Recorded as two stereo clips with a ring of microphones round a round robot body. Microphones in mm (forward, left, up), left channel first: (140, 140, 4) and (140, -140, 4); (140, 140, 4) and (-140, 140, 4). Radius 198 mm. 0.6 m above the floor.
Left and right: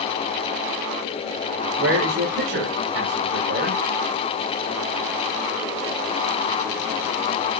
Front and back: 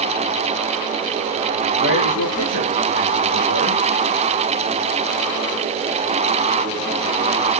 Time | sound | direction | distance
1.8 | a man speaking | 45° right | 3.5 m